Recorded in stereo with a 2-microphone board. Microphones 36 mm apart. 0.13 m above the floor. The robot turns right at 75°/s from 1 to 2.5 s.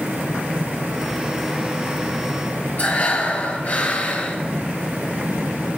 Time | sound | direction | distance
2.8 | breathing | 50° left (ahead or behind) | 2.5 m